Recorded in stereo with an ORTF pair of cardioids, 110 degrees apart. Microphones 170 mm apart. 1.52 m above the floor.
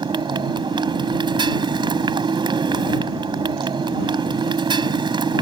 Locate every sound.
0.0 s a motorcycle: 30° right